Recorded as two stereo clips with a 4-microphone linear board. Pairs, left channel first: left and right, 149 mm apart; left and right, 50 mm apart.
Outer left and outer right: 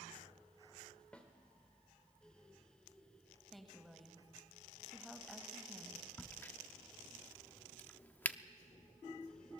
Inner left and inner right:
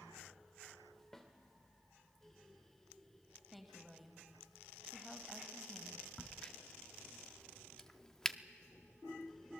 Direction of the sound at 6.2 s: 10° left (ahead or behind).